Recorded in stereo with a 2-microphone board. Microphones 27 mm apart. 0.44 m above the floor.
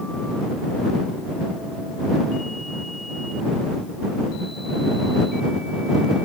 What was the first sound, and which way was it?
Only background noise.